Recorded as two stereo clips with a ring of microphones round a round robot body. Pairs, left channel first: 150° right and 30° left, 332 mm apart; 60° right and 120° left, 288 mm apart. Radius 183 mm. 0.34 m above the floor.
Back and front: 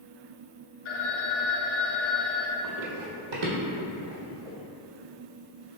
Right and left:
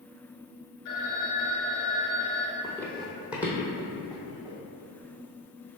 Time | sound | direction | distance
0.8 | a phone ringing | 105° right | 0.8 m
2.6 | running footsteps | 20° left | 0.8 m